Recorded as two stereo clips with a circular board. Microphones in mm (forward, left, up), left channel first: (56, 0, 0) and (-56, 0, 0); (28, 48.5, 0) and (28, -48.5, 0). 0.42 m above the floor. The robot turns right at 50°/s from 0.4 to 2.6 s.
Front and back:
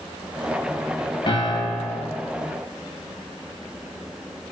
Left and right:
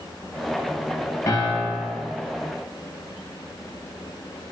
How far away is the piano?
About 0.6 m.